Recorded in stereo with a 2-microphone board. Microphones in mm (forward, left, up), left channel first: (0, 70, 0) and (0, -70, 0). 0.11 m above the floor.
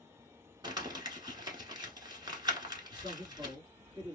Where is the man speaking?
35° right (ahead or behind), 2 m.